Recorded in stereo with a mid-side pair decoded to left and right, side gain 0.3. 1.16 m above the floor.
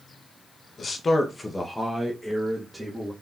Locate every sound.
0.8 s a man speaking: 65° left, 0.8 m; by 3.1 s 15° right, 1.5 m